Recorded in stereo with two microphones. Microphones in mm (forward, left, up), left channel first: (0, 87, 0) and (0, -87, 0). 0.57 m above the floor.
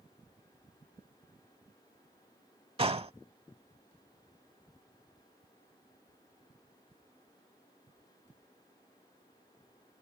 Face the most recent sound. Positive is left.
turn(degrees=-35)  # may be behind; listen again after turning